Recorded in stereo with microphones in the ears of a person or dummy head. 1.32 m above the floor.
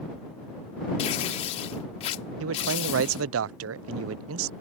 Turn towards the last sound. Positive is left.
turn(degrees=-65)  # may be behind; listen again after turning